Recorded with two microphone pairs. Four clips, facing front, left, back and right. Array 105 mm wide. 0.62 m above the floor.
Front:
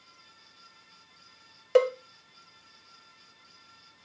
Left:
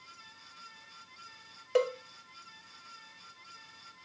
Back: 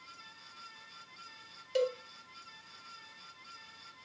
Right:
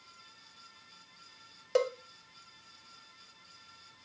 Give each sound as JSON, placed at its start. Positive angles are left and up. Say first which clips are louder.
{"t": 1.8, "sound": "a cowbell", "louder": "left 1 dB, front 9 dB", "azimuth_deg": 0, "distance_m": 0.5}